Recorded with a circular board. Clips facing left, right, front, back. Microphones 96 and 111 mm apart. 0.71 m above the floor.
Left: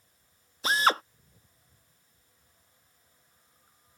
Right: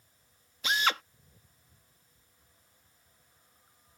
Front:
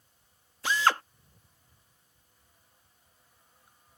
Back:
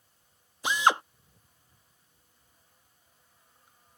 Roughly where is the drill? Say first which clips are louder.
Left 5 dB, back 1 dB; behind left.